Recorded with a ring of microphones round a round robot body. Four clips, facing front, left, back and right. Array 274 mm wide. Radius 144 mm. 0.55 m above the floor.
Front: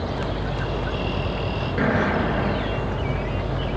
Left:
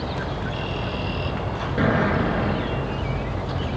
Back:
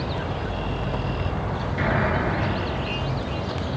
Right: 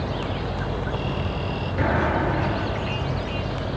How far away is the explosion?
About 5 m.